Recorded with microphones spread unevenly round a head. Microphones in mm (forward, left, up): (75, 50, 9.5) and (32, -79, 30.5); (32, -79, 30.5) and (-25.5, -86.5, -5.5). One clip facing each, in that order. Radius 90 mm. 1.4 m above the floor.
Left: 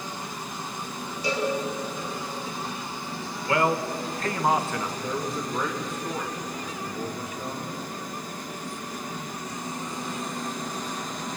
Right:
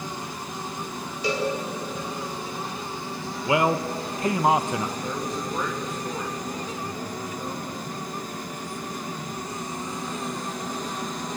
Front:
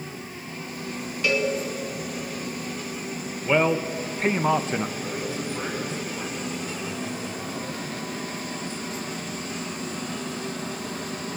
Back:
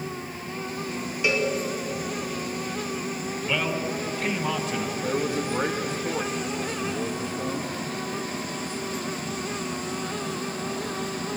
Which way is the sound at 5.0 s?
160° left.